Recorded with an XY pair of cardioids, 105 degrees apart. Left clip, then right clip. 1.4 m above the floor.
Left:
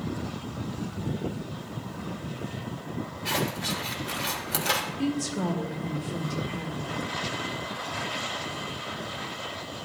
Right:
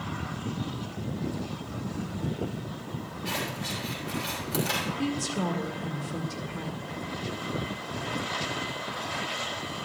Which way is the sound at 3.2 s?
35° left.